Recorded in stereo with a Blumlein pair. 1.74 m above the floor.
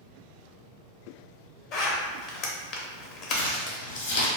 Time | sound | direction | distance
1.7 | a zipper | 35° left | 0.6 m
3.3 | crumpling | 55° left | 0.8 m